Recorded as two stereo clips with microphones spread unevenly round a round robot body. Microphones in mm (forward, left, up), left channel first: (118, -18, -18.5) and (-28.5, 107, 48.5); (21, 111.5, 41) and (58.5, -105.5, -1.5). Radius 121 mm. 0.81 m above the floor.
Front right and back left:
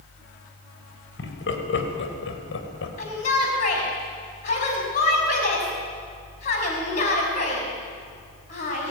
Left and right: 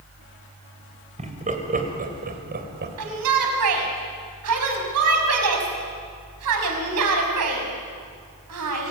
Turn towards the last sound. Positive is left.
turn(degrees=-100)